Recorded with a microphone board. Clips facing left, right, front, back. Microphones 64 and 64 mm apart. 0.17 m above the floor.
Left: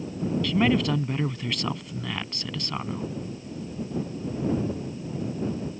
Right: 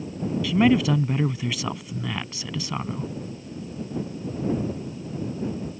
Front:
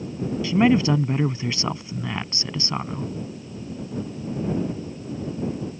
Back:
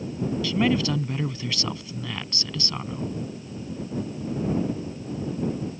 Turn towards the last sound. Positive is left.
turn(degrees=-10)